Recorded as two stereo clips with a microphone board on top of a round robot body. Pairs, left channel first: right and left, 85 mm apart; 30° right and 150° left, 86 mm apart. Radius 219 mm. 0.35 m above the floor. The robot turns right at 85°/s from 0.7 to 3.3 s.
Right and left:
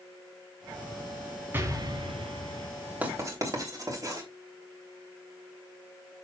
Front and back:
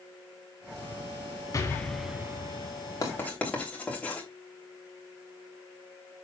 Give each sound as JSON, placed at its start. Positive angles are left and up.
{"t": 1.5, "sound": "an explosion", "azimuth_deg": 25, "distance_m": 1.1}
{"t": 3.0, "sound": "writing", "azimuth_deg": 20, "distance_m": 3.0}